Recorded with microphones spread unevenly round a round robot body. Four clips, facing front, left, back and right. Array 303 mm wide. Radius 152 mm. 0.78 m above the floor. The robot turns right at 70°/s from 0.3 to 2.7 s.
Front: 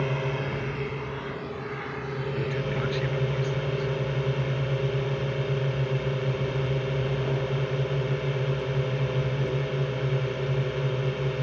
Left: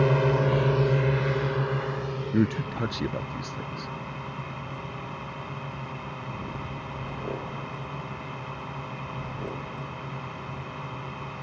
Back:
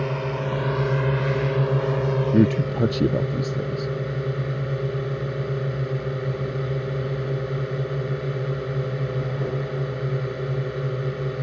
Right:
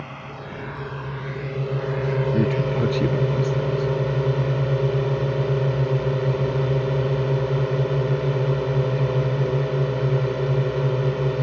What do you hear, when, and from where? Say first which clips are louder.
0.0 s a drone: left 13 dB, back 2 dB; 95° left; by 11.4 s 95° right
2.3 s a man speaking: right 4 dB, back 11 dB; 175° left; by 3.9 s 160° right